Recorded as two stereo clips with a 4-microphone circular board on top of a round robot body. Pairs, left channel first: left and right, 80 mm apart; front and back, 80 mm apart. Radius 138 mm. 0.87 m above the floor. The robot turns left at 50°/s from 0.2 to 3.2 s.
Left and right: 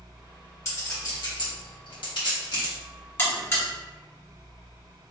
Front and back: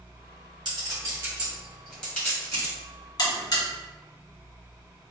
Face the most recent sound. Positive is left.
turn(degrees=30)